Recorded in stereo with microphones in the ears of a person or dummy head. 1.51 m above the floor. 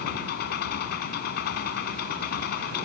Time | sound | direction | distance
0.0 | an engine running | 55° left (ahead or behind) | ?